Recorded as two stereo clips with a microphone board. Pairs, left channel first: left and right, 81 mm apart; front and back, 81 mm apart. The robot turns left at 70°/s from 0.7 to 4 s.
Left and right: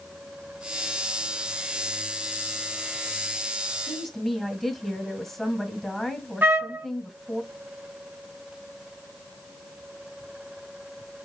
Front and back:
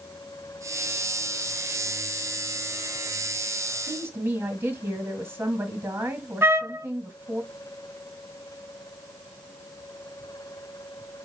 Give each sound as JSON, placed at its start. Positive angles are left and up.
{"t": 3.9, "sound": "a woman speaking", "azimuth_deg": -175, "distance_m": 1.6}
{"t": 6.4, "sound": "a trumpet", "azimuth_deg": -140, "distance_m": 0.7}